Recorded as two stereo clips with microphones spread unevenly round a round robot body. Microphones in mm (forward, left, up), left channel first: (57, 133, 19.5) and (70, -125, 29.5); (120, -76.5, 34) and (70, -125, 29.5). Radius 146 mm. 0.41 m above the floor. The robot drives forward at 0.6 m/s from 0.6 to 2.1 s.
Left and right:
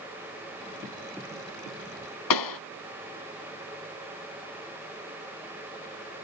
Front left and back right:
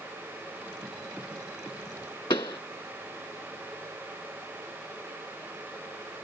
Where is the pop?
110° left.